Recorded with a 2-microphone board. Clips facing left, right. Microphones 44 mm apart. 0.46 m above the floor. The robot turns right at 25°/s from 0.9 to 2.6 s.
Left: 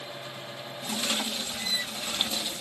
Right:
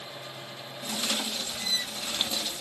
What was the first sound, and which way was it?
Only background noise.